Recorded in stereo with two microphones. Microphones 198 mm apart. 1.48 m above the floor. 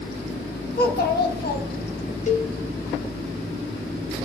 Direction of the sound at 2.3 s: 40° left (ahead or behind).